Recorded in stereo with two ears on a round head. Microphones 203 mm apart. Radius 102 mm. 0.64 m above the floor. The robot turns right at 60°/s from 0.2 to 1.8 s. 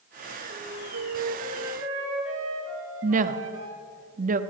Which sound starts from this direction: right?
A woman speaking, at 3.0 s.